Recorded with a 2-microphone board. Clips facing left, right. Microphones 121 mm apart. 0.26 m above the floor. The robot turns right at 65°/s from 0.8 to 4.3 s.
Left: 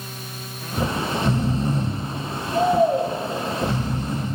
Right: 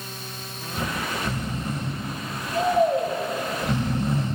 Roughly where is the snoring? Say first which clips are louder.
Left 5 dB; ahead left.